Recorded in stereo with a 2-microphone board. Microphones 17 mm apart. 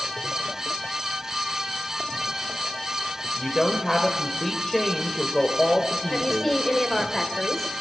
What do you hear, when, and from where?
3.2 s a woman speaking: 15° left (ahead or behind), 1.5 m
6.1 s a woman speaking: 15° left (ahead or behind), 1.9 m